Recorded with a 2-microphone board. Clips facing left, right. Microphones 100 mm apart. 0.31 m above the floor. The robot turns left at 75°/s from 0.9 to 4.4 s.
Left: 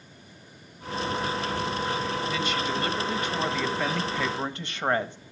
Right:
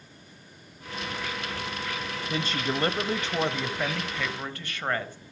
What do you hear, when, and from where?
2.3 s a woman speaking: 60° right, 1.3 m; by 5.2 s 140° left, 1.3 m